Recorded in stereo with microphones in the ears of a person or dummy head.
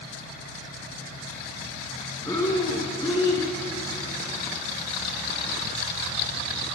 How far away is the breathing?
About 3.5 m.